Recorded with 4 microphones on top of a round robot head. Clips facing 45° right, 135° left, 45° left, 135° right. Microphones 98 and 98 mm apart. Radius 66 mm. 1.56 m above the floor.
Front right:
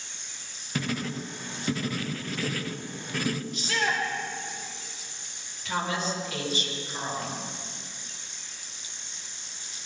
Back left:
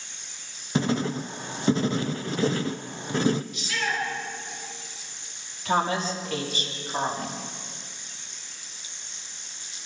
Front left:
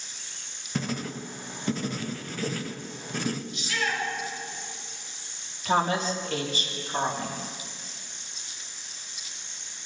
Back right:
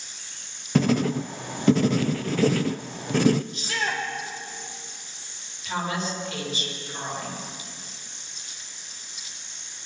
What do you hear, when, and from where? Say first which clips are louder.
0.8 s writing: back left 6 dB, back right 10 dB; 160° right, 0.5 m
3.5 s a shout: front right 1 dB, back right 1 dB; 90° right, 6 m
5.7 s a woman speaking: back left 5 dB, front left 4 dB; 85° left, 4.5 m